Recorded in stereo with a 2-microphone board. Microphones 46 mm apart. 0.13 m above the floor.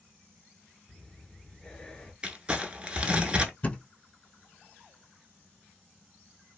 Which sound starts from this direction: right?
Crumpling, at 2.2 s.